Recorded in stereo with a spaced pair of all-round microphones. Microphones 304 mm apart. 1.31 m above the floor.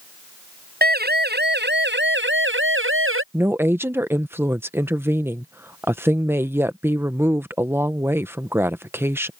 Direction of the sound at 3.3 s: 5° right (ahead or behind).